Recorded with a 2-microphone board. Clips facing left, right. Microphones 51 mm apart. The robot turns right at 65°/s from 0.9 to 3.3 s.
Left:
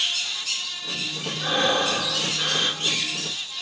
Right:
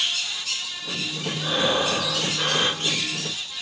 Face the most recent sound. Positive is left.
turn(degrees=-70)